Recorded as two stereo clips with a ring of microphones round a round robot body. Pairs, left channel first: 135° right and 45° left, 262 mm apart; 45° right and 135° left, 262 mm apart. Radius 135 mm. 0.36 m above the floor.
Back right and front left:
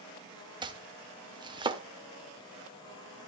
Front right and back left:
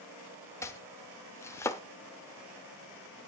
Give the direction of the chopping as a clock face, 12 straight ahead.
12 o'clock.